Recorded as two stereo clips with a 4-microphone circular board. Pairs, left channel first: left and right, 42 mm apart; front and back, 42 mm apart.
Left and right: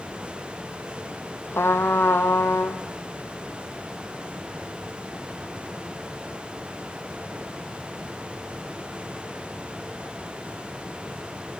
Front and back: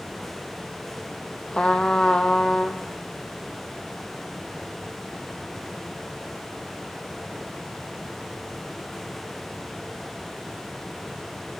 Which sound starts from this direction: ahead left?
A trumpet, at 1.5 s.